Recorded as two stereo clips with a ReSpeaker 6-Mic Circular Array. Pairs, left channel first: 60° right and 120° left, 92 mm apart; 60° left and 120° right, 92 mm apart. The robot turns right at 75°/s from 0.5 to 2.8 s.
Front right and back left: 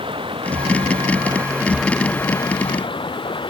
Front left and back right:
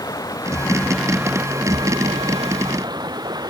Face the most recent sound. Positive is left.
turn(degrees=-80)